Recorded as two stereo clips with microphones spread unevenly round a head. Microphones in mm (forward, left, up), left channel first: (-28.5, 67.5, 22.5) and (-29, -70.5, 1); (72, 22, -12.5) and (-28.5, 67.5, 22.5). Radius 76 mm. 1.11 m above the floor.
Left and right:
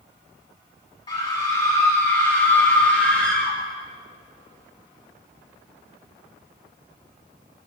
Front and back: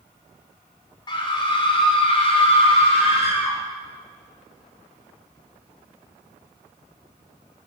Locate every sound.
1.1 s a scream: 25° left, 4 m; by 3.6 s 5° left, 4.5 m